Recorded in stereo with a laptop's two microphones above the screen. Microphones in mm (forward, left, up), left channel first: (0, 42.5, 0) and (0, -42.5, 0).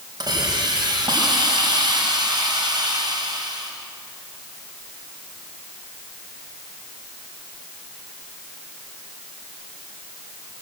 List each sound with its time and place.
0.2 s a hiss: 50° right (ahead or behind), 4 m